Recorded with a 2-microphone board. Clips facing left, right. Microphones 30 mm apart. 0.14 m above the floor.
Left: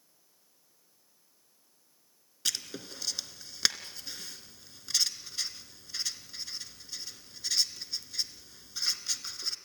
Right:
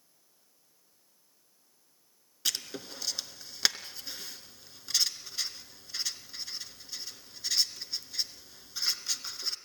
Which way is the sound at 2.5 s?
5° right (ahead or behind).